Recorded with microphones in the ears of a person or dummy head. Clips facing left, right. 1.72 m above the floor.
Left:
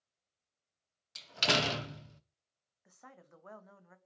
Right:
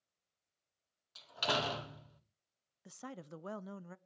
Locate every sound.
1.1 s a door slam: 35° left (ahead or behind), 0.7 m
2.9 s a woman speaking: 55° right (ahead or behind), 0.6 m